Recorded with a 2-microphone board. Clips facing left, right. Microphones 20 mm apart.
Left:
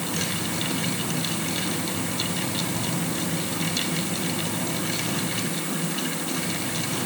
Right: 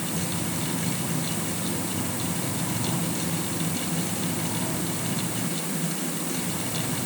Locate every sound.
Only background noise.